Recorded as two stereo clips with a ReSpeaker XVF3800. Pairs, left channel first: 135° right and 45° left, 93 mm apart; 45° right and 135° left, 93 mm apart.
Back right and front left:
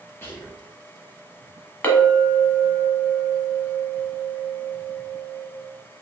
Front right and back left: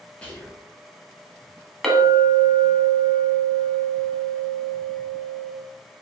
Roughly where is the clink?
Behind right.